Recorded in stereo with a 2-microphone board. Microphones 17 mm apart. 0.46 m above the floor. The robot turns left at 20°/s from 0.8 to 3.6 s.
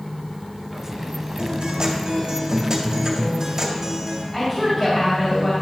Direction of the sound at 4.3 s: 25° left (ahead or behind).